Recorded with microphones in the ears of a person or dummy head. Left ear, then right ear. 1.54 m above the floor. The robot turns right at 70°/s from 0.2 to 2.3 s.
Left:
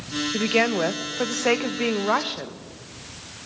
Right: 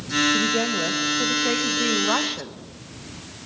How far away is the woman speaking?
About 1.5 m.